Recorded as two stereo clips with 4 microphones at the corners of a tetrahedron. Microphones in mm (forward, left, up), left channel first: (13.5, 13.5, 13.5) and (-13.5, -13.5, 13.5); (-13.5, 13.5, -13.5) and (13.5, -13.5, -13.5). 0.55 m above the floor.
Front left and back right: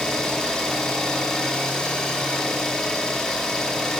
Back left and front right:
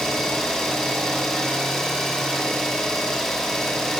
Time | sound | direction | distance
0.0 | an engine running | 90° left | 1.0 m